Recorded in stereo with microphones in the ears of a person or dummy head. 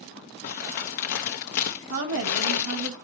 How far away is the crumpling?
About 0.6 m.